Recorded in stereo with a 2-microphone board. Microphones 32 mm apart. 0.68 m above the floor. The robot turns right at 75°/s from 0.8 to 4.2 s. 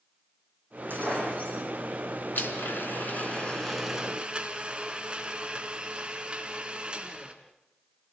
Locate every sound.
0.9 s breaking glass: 100° right, 9.5 m; by 1.6 s 50° right, 9.5 m
2.4 s a blender: 75° left, 3 m; by 7.3 s 150° right, 3 m